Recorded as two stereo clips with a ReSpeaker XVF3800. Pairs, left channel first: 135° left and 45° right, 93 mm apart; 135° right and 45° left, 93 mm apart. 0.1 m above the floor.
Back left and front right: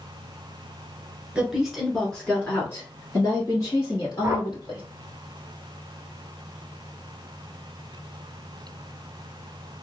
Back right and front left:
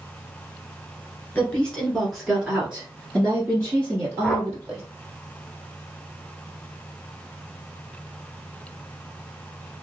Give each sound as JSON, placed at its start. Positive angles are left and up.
{"t": 1.4, "sound": "a woman speaking", "azimuth_deg": -100, "distance_m": 1.2}
{"t": 4.2, "sound": "a whoosh", "azimuth_deg": -45, "distance_m": 0.8}